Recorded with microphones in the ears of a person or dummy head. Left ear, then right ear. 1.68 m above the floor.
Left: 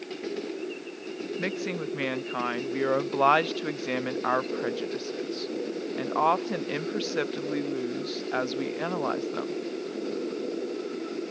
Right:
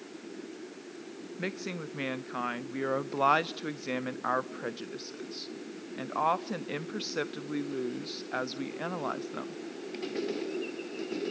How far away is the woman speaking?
About 0.5 m.